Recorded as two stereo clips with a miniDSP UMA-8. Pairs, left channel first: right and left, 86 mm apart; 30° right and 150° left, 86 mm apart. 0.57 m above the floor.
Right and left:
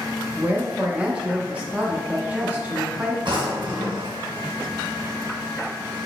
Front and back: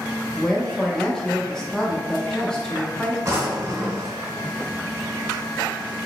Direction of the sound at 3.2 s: 105° left.